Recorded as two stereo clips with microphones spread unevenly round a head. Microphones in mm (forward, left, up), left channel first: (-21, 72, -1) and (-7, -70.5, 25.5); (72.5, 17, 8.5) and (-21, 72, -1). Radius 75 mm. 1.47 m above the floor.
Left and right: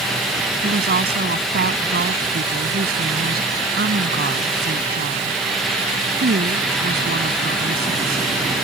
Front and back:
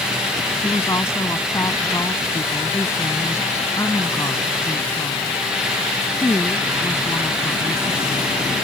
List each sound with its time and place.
0.6 s a woman speaking: 105° right